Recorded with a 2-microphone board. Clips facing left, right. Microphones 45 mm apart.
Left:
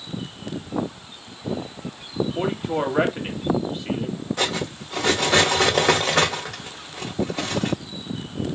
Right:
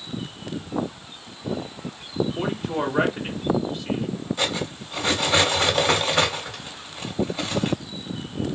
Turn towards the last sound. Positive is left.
turn(degrees=70)  # may be behind; listen again after turning